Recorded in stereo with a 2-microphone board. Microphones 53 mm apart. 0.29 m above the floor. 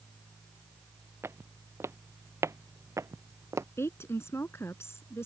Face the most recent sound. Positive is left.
turn(degrees=55)  # may be behind; listen again after turning